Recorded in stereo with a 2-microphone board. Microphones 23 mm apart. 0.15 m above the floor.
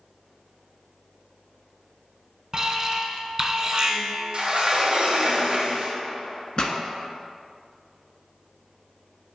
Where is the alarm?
30° right (ahead or behind), 0.9 m.